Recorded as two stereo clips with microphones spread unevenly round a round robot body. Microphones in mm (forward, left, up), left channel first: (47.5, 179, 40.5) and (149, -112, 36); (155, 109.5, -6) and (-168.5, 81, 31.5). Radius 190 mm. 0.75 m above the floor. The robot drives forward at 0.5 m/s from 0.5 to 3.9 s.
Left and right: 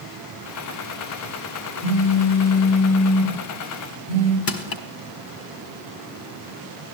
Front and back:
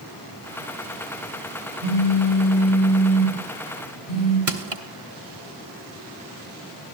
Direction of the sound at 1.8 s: 135° right.